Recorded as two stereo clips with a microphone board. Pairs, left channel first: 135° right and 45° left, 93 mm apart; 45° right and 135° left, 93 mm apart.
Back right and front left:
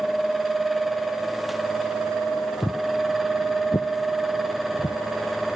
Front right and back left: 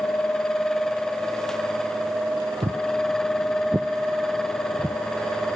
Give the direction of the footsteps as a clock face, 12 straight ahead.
6 o'clock.